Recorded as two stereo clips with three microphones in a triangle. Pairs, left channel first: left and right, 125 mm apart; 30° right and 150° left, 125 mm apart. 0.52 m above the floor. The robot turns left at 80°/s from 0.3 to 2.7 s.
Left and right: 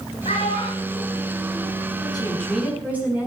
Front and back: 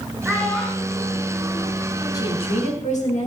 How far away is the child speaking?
About 5.5 m.